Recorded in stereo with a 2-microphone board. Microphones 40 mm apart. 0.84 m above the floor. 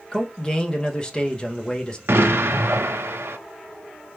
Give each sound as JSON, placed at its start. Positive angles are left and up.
{"t": 0.1, "sound": "a man speaking", "side_deg": 20, "distance_m": 0.8}
{"t": 2.1, "sound": "an explosion", "side_deg": -85, "distance_m": 0.6}